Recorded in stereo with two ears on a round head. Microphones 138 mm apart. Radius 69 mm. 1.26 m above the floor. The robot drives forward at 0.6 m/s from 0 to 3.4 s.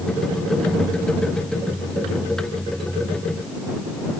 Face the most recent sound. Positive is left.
No sound to turn to.